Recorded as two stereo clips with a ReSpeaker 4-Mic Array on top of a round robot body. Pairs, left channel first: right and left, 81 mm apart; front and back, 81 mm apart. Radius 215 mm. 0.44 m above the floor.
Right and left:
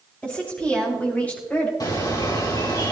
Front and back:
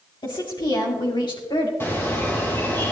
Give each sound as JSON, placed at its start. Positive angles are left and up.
{"t": 0.2, "sound": "a woman speaking", "azimuth_deg": -15, "distance_m": 4.5}
{"t": 1.8, "sound": "a bird", "azimuth_deg": -60, "distance_m": 3.5}